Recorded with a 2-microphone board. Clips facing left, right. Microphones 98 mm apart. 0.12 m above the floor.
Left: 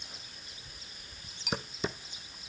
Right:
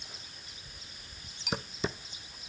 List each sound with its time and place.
Only background noise.